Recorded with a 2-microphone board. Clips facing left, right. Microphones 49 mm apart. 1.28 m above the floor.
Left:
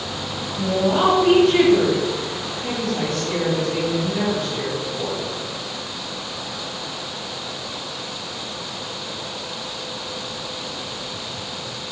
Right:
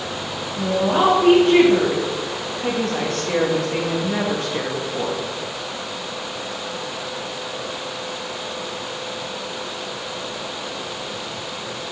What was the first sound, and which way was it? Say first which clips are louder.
A woman speaking: right 1 dB; 25° right (ahead or behind).